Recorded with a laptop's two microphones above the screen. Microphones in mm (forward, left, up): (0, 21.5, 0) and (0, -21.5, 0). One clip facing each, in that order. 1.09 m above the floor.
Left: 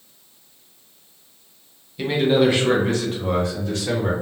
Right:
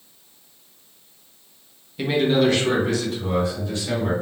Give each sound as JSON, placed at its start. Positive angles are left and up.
{"t": 2.0, "sound": "a man speaking", "side_deg": -10, "distance_m": 0.6}